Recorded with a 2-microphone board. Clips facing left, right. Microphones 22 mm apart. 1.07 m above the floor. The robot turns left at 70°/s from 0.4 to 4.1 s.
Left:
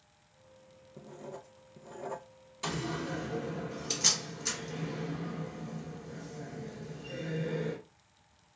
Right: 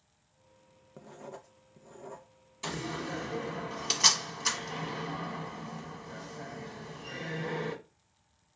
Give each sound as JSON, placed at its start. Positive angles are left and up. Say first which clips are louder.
{"t": 1.0, "sound": "writing", "louder": "left 1 dB", "azimuth_deg": -140, "distance_m": 0.6}
{"t": 2.6, "sound": "a door slam", "louder": "left 1 dB", "side_deg": 15, "distance_m": 1.3}